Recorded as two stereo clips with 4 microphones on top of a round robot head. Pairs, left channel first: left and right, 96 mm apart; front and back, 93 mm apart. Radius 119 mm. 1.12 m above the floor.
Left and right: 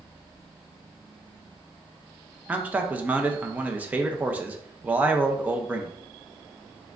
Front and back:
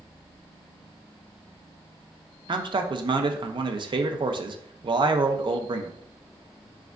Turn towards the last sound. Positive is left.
turn(degrees=-160)